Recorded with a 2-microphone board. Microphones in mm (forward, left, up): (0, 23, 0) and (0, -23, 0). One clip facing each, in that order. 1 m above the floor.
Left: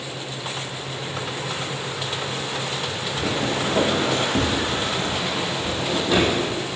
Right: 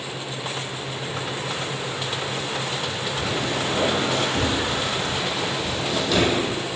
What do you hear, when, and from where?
3.2 s footsteps: 65° left (ahead or behind), 3.5 m; by 6.3 s 10° left (ahead or behind), 2.5 m